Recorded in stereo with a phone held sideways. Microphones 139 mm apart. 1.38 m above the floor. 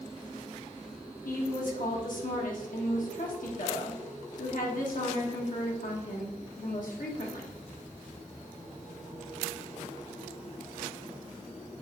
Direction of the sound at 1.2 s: 75° left (ahead or behind).